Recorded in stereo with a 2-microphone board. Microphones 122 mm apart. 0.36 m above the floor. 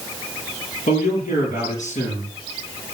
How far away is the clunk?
No clunk in this recording.